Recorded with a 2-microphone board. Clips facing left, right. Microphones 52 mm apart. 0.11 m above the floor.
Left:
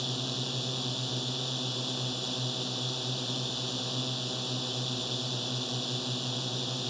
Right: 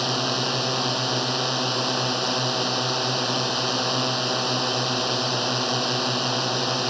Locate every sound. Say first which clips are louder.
0.0 s a drone: right 11 dB; 65° right (ahead or behind)